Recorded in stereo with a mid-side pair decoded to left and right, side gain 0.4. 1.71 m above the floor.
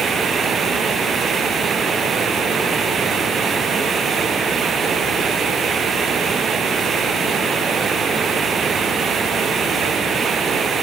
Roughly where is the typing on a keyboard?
No typing on a keyboard in this recording.